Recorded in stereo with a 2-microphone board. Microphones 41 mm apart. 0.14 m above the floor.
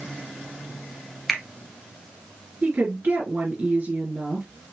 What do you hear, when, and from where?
1.3 s a finger snap: centre (ahead or behind), 1.6 m
2.6 s a woman speaking: 45° right (ahead or behind), 2.5 m